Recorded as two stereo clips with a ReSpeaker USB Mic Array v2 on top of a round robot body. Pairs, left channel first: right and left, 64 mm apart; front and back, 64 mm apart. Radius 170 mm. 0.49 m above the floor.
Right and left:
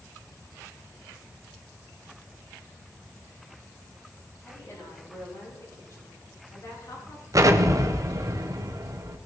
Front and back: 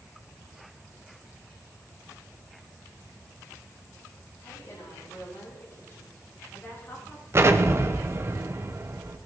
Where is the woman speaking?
45° right, 7 m; by 7.2 s 55° right, 5 m.